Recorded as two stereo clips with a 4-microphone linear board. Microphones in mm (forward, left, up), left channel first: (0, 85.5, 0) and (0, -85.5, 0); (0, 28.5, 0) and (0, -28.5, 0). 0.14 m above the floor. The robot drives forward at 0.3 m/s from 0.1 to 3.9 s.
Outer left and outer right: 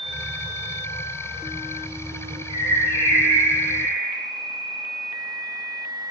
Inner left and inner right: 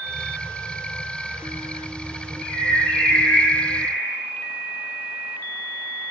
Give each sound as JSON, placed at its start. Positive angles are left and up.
{"t": 2.5, "sound": "a bird", "side_deg": 35, "distance_m": 1.3}